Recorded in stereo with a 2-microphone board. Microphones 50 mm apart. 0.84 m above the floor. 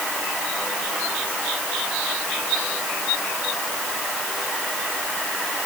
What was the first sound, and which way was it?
Only background noise.